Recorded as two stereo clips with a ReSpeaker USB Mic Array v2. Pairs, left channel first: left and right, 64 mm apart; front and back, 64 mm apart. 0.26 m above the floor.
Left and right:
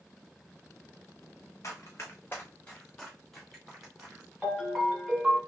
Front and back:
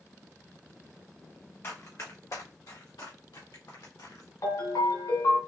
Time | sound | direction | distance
1.6 | running footsteps | 45° left | 1.3 m
4.4 | a ringtone | 5° right | 1.9 m